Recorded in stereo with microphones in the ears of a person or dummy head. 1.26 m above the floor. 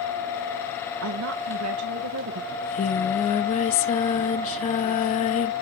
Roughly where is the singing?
Left.